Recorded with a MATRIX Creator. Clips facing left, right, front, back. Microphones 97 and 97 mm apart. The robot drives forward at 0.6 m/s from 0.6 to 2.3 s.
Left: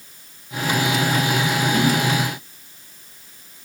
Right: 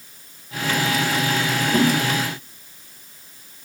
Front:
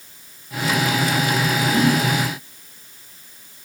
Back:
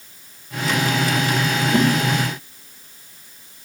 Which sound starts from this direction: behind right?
A whoosh, at 1.7 s.